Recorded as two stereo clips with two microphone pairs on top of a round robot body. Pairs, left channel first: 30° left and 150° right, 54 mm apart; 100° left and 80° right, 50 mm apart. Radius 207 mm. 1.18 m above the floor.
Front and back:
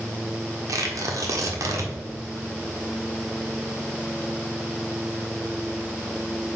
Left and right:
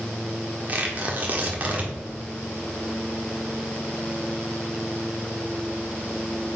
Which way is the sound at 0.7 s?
140° right.